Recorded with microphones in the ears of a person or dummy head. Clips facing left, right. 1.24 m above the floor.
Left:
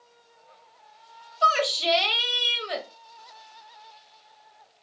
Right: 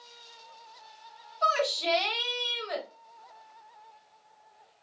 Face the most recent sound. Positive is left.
turn(degrees=40)  # may be behind; listen again after turning